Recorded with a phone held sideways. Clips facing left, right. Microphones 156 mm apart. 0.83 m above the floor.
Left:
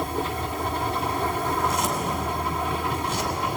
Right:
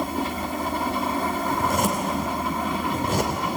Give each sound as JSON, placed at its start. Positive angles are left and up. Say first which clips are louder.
{"t": 1.5, "sound": "a zipper", "louder": "right 2 dB", "side_deg": -60, "distance_m": 3.0}